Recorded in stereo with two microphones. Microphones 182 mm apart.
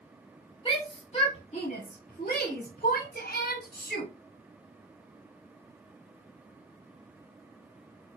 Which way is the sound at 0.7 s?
30° left (ahead or behind).